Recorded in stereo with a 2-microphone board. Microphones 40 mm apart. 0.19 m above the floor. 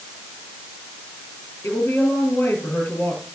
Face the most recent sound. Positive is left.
turn(degrees=70)  # may be behind; listen again after turning